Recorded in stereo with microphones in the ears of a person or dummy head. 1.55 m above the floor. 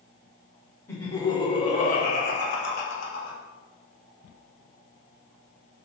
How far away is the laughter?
About 1.0 m.